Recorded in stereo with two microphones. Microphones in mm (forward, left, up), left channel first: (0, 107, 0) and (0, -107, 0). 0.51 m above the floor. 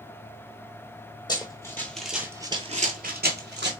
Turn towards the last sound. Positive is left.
turn(degrees=-55)  # may be behind; listen again after turning